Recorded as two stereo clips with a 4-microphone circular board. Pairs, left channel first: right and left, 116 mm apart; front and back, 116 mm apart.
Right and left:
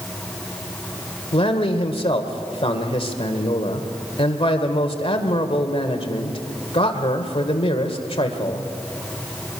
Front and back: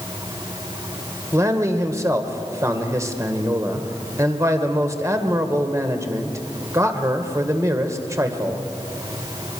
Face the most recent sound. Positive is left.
turn(degrees=-120)